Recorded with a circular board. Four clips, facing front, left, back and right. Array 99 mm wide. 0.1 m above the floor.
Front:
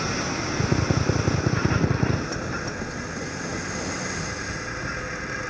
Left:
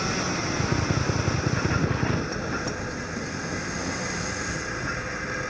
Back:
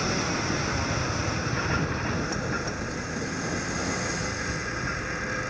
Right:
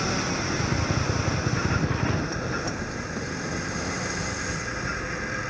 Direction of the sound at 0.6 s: 10° left.